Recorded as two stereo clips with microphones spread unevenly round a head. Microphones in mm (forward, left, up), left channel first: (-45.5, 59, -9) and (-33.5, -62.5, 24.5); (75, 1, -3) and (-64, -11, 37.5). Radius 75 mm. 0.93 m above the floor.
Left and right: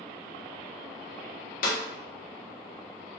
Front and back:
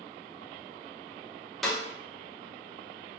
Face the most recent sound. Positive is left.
turn(degrees=95)